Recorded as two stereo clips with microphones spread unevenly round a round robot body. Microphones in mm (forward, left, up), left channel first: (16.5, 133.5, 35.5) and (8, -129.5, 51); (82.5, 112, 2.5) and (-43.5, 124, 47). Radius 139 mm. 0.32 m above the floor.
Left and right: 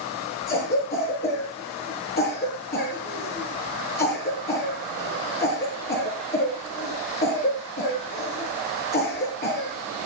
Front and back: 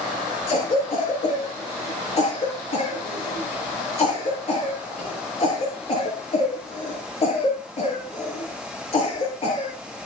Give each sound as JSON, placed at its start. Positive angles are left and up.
{"t": 0.5, "sound": "a cough", "azimuth_deg": 30, "distance_m": 5.5}